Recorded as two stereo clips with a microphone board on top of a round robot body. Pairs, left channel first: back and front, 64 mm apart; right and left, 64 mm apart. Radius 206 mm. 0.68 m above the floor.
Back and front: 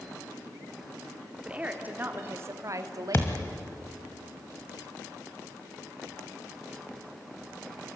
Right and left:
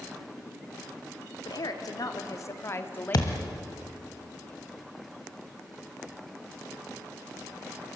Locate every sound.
1.4 s a woman speaking: 75° right, 2.5 m; by 3.5 s 15° right, 2 m
3.1 s a thud: 120° right, 1.2 m